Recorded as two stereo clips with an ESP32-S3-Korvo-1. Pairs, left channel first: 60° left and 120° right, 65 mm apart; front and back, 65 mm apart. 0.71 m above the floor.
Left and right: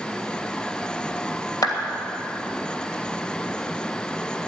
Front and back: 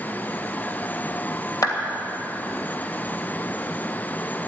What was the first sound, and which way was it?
A clap, 35° left.